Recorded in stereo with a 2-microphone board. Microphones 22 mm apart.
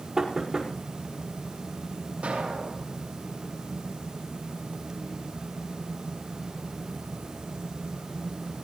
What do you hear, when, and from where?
0.2 s knocking: 20° right (ahead or behind), 5 m
2.2 s an explosion: 70° right (ahead or behind), 5.5 m